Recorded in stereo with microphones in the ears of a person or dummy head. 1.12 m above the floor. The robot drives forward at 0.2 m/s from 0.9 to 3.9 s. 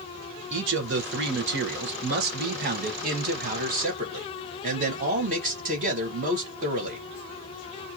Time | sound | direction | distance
0.5 | a man speaking | 60° right (ahead or behind) | 0.9 m